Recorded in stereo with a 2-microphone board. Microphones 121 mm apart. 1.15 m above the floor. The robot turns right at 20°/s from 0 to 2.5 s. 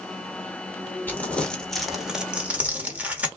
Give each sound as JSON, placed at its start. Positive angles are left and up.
{"t": 1.1, "sound": "crumpling", "side_deg": 15, "distance_m": 1.4}